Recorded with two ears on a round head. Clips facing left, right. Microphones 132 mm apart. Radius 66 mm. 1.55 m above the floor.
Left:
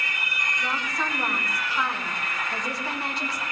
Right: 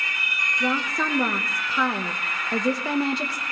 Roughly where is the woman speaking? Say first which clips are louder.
Right 6 dB; right.